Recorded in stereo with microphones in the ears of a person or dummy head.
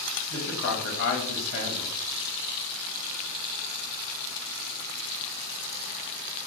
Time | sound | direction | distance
0.3 | a man speaking | 70° left (ahead or behind) | 0.9 m